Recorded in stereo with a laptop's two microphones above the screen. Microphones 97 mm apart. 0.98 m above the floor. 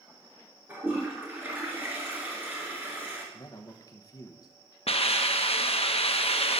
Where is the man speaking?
40° left (ahead or behind), 0.9 m.